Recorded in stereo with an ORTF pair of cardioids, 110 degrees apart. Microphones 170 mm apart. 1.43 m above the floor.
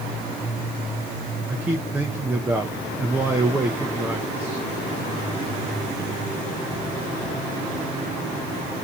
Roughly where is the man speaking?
Ahead.